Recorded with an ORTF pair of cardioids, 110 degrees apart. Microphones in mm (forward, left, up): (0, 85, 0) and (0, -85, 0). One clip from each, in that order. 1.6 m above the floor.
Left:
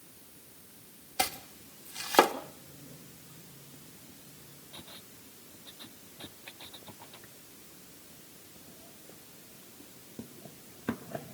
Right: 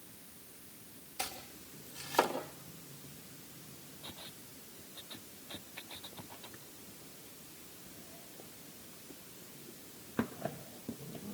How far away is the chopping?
About 1.9 m.